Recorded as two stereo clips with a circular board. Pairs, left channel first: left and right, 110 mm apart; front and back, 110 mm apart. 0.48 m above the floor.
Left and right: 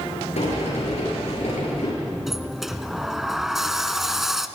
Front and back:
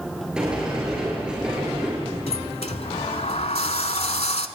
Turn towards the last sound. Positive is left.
turn(degrees=-5)